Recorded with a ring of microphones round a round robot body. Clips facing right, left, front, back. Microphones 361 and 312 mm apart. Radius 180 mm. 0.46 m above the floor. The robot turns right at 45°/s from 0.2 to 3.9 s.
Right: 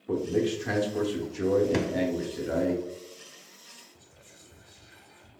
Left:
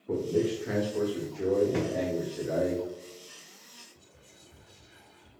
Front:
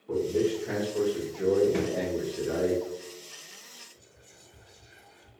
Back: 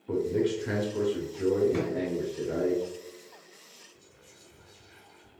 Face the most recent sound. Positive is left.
turn(degrees=-115)